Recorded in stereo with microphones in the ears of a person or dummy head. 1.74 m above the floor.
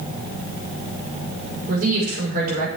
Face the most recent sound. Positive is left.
turn(degrees=-50)  # may be behind; listen again after turning